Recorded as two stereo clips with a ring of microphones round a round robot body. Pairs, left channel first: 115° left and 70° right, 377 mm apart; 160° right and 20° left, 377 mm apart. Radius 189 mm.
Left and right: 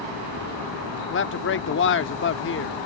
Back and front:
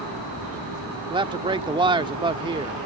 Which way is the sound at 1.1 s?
90° left.